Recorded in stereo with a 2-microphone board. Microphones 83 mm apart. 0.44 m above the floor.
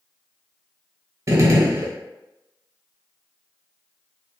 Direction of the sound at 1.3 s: 40° right (ahead or behind).